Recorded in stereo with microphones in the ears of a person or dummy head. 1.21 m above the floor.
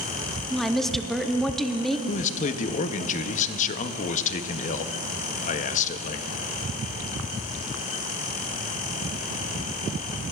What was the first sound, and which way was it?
A woman speaking, 5° left (ahead or behind).